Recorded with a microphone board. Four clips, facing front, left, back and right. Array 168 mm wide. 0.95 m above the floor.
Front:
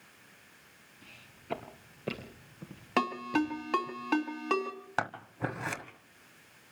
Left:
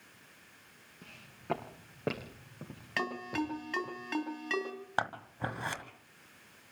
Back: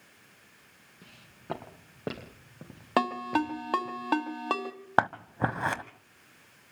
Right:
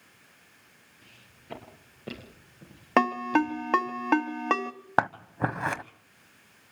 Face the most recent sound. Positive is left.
turn(degrees=-135)